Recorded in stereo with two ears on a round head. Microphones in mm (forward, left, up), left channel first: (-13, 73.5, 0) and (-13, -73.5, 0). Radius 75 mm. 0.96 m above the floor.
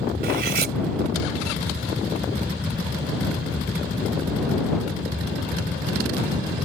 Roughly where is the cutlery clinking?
Right.